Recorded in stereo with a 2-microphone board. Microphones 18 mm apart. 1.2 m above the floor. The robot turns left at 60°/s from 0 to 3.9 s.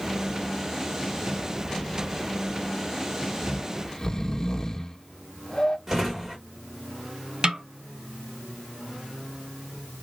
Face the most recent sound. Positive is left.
turn(degrees=-50)  # may be behind; listen again after turning